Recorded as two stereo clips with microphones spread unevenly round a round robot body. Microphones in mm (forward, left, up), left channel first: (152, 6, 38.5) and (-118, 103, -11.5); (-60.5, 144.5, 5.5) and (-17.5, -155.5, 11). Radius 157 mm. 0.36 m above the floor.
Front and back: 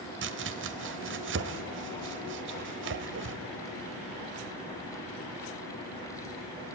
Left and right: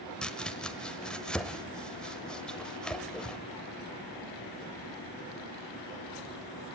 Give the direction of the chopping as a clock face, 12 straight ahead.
6 o'clock.